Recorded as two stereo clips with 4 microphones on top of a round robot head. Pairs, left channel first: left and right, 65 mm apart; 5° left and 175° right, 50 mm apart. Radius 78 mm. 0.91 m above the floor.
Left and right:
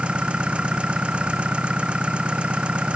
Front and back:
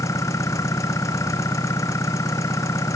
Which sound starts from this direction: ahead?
An engine running, at 0.0 s.